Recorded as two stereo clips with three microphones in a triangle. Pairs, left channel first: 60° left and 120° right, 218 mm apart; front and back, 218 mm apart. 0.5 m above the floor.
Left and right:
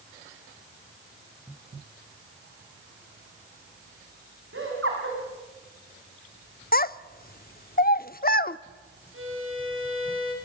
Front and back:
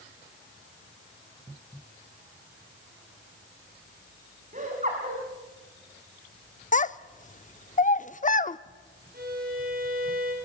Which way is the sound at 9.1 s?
135° right.